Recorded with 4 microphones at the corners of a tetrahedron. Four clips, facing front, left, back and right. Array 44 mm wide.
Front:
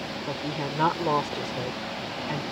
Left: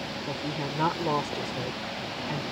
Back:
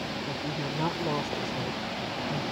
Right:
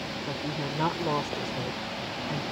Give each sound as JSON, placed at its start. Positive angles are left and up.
{"t": 0.3, "sound": "a woman speaking", "azimuth_deg": 5}